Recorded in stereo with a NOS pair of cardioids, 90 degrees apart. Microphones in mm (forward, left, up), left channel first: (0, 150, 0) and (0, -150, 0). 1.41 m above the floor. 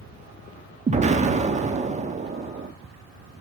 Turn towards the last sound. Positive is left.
turn(degrees=-25)